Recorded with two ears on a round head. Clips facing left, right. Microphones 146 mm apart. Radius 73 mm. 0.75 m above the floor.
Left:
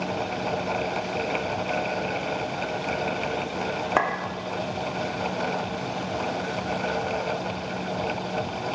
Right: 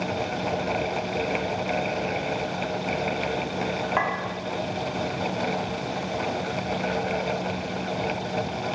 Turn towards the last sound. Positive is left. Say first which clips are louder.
# left 3 dB
turn(degrees=55)  # may be behind; listen again after turning